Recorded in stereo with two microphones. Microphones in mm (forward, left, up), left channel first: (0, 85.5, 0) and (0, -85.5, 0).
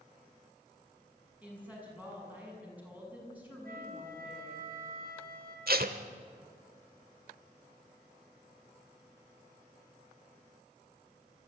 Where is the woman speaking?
10° right (ahead or behind), 7 m.